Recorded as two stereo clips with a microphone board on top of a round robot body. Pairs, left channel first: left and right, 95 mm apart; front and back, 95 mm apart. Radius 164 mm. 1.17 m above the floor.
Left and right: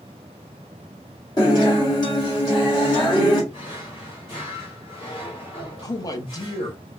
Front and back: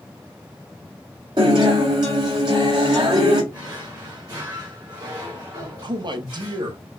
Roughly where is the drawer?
Behind left.